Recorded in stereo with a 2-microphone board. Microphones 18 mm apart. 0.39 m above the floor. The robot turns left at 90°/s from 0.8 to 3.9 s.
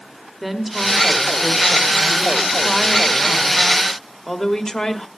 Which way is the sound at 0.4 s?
15° right.